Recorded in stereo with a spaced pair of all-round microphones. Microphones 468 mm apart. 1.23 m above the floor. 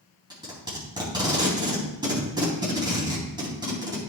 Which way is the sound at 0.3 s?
10° right (ahead or behind).